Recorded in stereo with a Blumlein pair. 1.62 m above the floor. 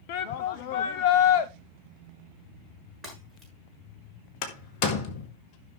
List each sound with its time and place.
0.1 s a shout: 45° left, 0.6 m
3.0 s breaking glass: straight ahead, 7 m
4.4 s a door slam: 40° left, 1.9 m